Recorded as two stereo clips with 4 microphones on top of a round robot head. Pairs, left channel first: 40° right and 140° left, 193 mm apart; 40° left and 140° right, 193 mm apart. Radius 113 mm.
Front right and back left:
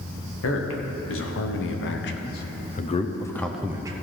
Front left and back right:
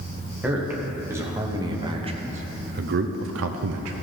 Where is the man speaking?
55° right, 1.7 m; by 3.9 s 150° right, 0.7 m.